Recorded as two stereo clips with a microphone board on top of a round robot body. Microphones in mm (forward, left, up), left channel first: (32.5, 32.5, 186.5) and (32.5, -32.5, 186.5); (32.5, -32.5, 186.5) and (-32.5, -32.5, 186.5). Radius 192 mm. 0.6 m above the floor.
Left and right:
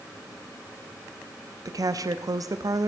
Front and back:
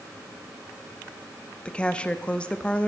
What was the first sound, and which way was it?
A woman speaking, 75° right.